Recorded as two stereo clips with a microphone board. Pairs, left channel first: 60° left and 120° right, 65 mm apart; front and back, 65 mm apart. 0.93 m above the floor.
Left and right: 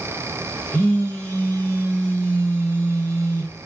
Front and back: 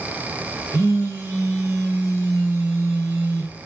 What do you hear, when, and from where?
0.7 s a phone buzzing: 125° left, 1.0 m